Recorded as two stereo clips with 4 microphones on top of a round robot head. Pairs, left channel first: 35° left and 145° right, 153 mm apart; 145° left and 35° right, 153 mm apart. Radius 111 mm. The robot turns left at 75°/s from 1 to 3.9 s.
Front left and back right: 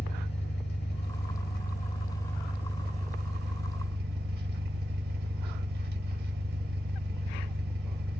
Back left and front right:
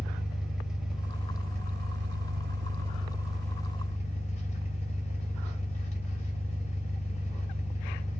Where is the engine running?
55° left, 1.8 m; by 8.2 s 165° right, 1.8 m.